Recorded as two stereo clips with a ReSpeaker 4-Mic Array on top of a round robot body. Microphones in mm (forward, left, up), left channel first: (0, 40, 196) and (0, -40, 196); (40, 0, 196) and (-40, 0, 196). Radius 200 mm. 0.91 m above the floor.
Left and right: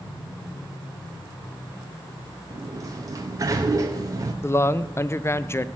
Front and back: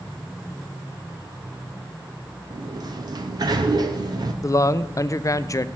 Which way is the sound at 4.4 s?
40° left.